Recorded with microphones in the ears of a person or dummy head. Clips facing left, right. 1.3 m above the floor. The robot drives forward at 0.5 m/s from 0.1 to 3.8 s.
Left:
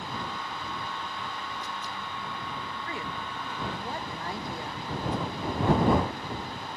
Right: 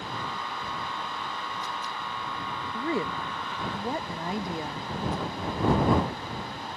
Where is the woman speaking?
30° right (ahead or behind); by 4.9 s 20° right (ahead or behind).